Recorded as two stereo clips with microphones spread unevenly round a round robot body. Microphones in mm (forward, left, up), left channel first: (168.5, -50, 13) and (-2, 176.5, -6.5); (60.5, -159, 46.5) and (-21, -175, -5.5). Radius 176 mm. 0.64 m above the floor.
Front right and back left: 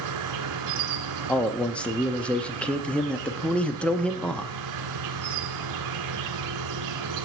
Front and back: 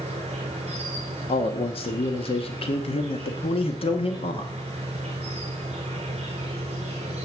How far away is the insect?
About 1.1 m.